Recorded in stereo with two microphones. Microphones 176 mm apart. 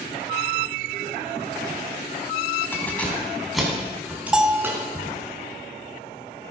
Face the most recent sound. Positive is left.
turn(degrees=-5)  # may be behind; listen again after turning